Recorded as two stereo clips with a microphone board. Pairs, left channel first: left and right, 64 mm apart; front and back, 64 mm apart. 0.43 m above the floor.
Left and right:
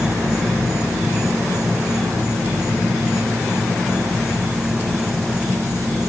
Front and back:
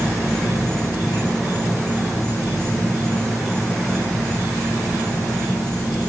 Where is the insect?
Straight ahead, 2.5 m.